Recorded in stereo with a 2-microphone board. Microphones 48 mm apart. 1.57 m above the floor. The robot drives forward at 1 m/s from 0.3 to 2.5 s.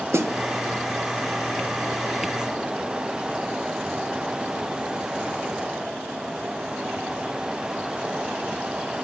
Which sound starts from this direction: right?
A snare drum, at 0.1 s.